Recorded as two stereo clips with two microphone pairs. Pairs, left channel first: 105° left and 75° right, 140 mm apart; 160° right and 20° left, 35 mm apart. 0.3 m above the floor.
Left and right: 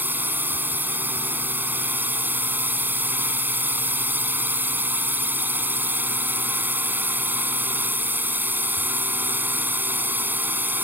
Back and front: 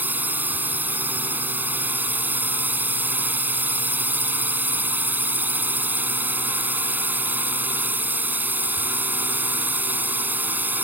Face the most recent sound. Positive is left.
turn(degrees=0)